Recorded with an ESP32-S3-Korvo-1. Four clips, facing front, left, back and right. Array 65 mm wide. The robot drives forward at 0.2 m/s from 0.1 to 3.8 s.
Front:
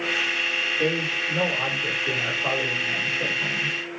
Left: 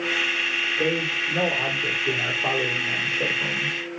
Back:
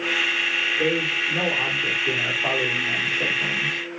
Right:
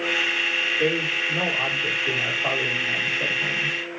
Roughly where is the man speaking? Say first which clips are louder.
Right 1 dB, back 1 dB; behind left.